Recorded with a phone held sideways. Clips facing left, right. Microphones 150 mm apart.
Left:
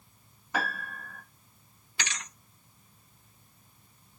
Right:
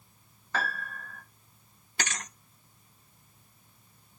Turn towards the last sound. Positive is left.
turn(degrees=-50)  # may be behind; listen again after turning